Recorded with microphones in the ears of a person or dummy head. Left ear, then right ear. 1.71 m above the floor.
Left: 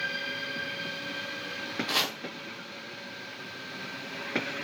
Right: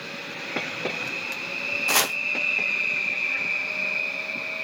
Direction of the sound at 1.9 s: 30° right (ahead or behind).